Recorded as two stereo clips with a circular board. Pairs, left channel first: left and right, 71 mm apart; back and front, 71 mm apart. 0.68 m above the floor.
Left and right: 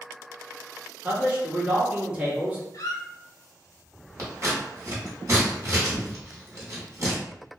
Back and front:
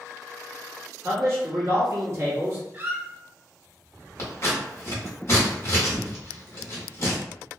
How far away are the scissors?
About 1.0 m.